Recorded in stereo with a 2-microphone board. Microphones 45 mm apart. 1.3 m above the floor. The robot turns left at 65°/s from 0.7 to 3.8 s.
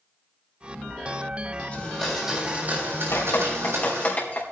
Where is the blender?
25° left, 6.5 m; by 4.1 s 110° right, 6.5 m.